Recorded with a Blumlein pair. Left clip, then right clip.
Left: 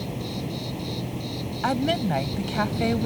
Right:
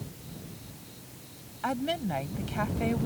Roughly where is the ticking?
No ticking in this recording.